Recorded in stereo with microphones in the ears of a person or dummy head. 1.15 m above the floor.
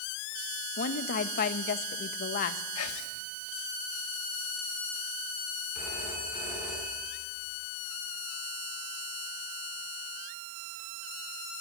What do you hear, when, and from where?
0.8 s a woman speaking: 50° left (ahead or behind), 1.4 m
2.8 s whispering: 80° left, 2.5 m
5.8 s a phone ringing: 10° right (ahead or behind), 7.5 m